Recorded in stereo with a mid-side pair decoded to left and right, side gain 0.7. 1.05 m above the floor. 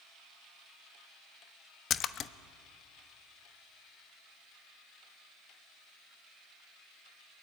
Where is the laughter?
I don't hear laughter.